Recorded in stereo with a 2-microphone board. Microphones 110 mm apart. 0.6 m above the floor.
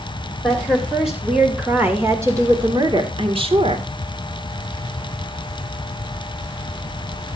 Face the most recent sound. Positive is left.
turn(degrees=-60)  # may be behind; listen again after turning